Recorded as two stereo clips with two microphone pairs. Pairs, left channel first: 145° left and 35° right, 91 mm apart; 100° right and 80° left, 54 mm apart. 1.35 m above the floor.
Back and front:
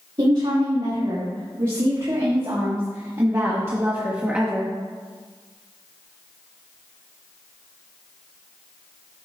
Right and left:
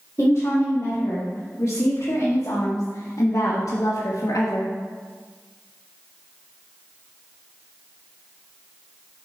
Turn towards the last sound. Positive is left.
turn(degrees=-115)